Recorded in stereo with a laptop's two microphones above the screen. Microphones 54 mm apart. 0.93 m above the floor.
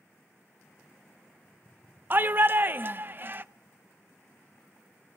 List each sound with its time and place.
2.1 s a shout: 40° right (ahead or behind), 0.6 m